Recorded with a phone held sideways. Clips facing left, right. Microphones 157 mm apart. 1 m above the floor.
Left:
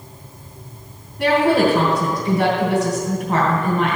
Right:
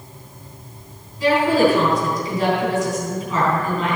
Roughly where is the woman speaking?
Left.